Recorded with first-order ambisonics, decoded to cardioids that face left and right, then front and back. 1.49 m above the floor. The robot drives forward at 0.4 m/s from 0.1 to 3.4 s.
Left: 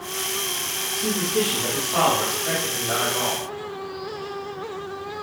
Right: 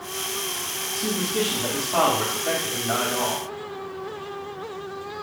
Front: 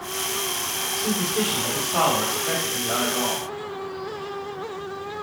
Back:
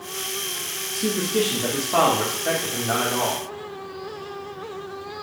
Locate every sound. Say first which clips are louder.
0.9 s a man speaking: left 2 dB, back 4 dB; 170° right, 1.5 m; by 3.4 s 175° right, 2.5 m